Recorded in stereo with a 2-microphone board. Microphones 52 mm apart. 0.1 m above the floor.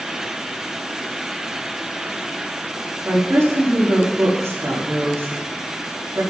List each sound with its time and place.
3.0 s a woman speaking: 75° right (ahead or behind), 5 m